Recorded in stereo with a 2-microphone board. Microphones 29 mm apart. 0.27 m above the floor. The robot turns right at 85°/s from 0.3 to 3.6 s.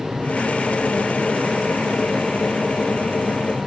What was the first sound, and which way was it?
Only background noise.